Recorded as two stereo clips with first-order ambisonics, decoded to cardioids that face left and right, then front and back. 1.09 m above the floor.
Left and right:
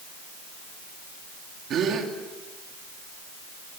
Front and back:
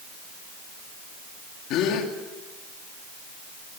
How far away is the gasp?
About 2.5 m.